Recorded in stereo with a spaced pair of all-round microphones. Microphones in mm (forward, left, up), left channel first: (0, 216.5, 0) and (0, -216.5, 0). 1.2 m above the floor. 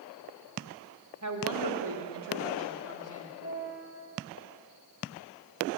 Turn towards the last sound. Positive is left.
turn(degrees=15)  # may be behind; listen again after turning